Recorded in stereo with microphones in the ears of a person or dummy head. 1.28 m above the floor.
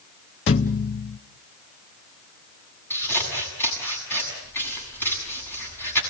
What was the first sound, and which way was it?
A thud, 35° left (ahead or behind).